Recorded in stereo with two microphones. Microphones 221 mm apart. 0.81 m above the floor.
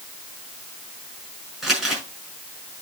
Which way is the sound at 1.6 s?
Centre (ahead or behind).